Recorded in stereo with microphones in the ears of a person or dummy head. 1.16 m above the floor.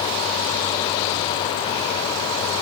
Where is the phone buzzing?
No phone buzzing in this recording.